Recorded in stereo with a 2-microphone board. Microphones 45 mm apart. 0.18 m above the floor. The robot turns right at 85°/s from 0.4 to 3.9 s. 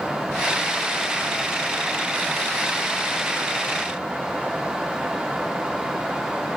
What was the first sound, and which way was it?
Only background noise.